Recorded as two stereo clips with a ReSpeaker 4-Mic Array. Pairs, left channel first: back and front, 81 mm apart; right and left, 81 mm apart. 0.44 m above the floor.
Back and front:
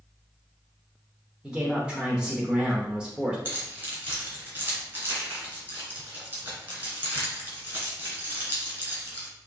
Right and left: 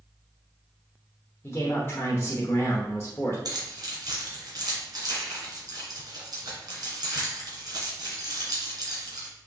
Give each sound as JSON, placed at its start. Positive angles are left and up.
{"t": 1.4, "sound": "a man speaking", "azimuth_deg": -70, "distance_m": 0.9}
{"t": 3.5, "sound": "keys jangling", "azimuth_deg": 60, "distance_m": 2.5}